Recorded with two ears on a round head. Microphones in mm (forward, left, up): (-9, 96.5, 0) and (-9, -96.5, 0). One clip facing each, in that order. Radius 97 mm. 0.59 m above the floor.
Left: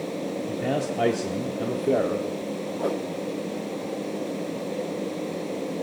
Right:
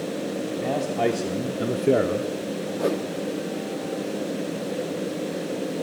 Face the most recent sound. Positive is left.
turn(degrees=-30)  # may be behind; listen again after turning